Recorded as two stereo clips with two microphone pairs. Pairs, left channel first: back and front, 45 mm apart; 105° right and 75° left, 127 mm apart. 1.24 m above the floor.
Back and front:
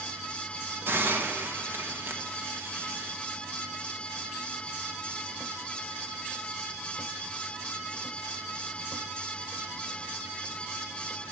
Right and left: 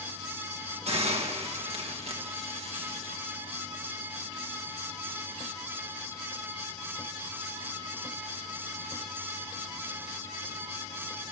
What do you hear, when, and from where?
0.9 s a hiss: 35° left, 1.3 m